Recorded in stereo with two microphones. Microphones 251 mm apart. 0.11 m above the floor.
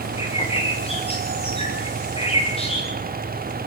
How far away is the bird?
About 6.5 m.